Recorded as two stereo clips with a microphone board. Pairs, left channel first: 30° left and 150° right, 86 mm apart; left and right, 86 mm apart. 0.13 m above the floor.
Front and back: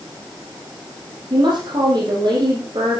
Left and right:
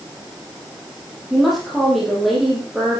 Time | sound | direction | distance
1.3 | a woman speaking | straight behind | 5.5 m